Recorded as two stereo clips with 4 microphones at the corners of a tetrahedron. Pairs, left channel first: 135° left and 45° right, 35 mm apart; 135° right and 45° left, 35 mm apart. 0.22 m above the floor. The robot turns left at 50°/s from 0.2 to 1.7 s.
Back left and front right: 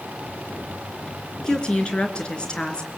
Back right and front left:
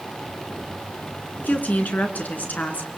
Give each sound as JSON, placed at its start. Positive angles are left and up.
{"t": 1.4, "sound": "a woman speaking", "azimuth_deg": -150, "distance_m": 3.0}